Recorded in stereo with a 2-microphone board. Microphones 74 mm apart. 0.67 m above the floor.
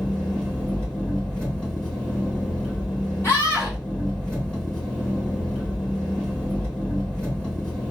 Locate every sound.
0.0 s an engine running: 15° left (ahead or behind), 2.5 m
3.2 s a scream: 35° left (ahead or behind), 2.5 m